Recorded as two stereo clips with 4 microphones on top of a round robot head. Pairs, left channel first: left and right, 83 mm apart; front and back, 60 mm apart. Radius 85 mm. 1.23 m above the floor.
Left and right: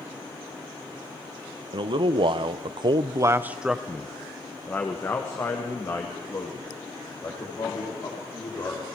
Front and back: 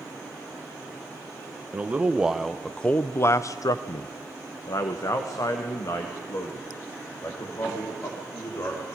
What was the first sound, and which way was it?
A man speaking, 115° right.